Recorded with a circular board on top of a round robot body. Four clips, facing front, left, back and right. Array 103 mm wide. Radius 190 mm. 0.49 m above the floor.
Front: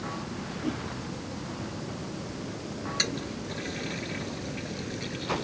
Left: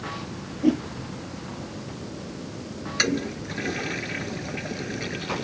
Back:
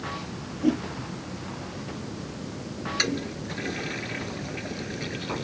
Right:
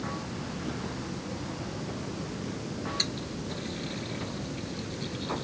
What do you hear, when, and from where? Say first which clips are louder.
0.6 s a whoosh: left 19 dB, back 10 dB; 120° left
3.0 s a toilet flushing: left 9 dB, back 4 dB; 110° left